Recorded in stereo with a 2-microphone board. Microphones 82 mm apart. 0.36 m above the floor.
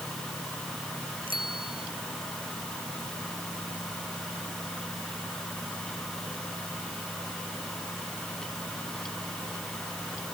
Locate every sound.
1.3 s a bicycle bell: 80° right